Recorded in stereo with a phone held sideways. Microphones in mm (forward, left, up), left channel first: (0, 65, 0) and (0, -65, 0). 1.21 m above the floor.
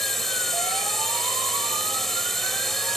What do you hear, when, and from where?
0.0 s a drone: centre (ahead or behind)